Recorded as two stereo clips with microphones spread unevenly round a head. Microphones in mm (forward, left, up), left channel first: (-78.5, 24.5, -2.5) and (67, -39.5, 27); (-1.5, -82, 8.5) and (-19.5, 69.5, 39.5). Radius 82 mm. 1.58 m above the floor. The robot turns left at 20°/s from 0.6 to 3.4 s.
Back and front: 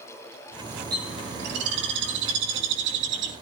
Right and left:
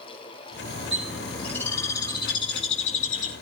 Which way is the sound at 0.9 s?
10° left.